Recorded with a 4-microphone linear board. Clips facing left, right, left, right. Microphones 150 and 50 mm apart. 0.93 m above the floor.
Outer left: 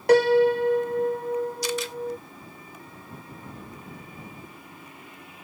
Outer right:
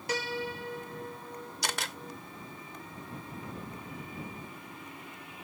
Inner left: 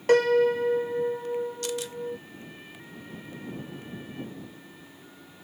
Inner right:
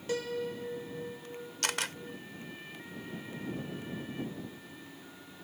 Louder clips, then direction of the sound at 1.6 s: Outer left 9 dB, inner left 2 dB; 80° right.